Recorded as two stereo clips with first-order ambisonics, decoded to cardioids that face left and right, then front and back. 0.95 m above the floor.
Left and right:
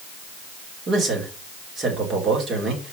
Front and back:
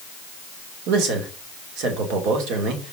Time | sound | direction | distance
0.9 | a man speaking | 160° right | 2.5 m